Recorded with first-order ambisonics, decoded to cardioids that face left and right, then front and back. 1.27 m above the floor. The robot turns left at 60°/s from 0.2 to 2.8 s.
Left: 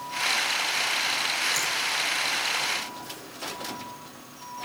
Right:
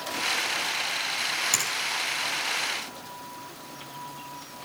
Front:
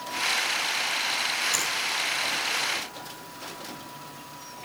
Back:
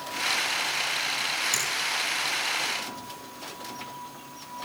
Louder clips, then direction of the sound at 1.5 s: Even, front 1 dB; 105° right.